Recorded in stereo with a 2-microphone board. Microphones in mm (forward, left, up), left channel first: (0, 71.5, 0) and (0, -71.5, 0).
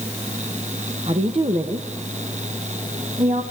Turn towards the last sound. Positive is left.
turn(degrees=-55)  # may be behind; listen again after turning